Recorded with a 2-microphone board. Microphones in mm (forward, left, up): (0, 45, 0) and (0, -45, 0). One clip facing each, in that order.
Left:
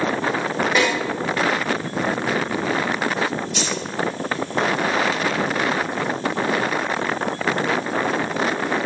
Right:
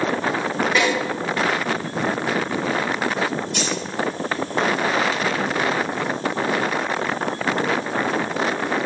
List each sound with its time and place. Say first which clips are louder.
0.8 s a snare drum: even; centre (ahead or behind), 1.2 m
3.5 s keys jangling: right 1 dB; 55° right (ahead or behind), 1.3 m